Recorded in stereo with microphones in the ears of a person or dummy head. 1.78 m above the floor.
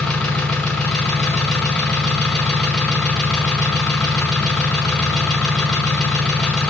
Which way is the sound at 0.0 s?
5° left (ahead or behind).